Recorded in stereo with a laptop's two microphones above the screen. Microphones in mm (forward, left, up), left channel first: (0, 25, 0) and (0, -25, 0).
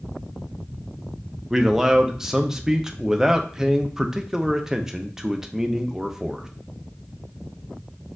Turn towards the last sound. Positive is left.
turn(degrees=-10)  # may be behind; listen again after turning